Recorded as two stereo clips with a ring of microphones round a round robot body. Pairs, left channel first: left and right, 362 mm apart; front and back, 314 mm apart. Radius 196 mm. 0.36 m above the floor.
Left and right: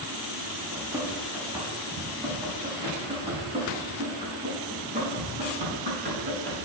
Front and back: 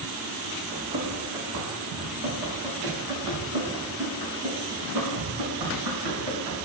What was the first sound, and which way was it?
Running footsteps, 175° right.